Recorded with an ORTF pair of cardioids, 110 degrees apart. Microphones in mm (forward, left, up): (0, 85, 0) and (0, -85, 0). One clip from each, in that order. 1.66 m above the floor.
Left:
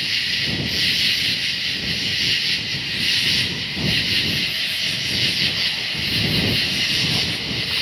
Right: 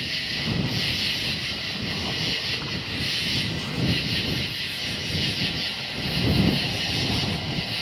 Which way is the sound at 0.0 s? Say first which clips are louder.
Left 7 dB; 45° left.